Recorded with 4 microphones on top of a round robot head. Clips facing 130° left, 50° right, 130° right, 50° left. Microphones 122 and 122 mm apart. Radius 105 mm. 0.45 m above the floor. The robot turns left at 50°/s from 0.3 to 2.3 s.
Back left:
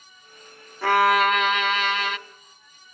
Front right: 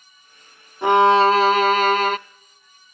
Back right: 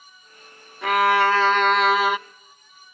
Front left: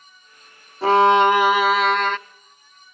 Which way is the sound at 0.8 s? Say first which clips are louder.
Front right 5 dB, front left 5 dB; 10° left.